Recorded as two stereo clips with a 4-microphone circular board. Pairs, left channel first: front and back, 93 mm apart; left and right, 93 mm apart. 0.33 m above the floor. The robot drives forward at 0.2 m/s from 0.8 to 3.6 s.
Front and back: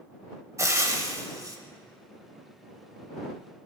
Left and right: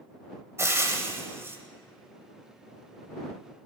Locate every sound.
0.6 s frying: 140° right, 0.9 m; by 1.6 s 145° right, 1.0 m